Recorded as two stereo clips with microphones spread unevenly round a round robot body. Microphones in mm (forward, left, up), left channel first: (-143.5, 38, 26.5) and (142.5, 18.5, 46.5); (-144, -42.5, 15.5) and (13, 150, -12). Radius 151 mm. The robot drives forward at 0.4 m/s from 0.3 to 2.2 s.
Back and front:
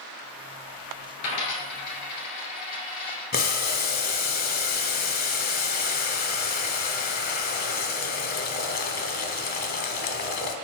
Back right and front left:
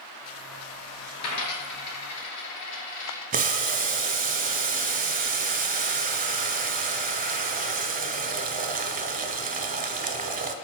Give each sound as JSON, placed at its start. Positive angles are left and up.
{"t": 1.2, "sound": "a dropped coin", "azimuth_deg": -140, "distance_m": 1.6}
{"t": 3.3, "sound": "boiling", "azimuth_deg": 115, "distance_m": 0.6}